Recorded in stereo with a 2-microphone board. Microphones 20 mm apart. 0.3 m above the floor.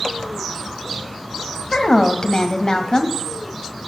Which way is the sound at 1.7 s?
45° left (ahead or behind).